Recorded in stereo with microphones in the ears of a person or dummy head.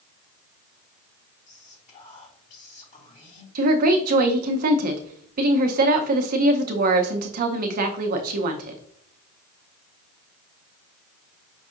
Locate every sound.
1.5 s whispering: 45° left (ahead or behind), 2 m
3.5 s a woman speaking: 50° right (ahead or behind), 0.6 m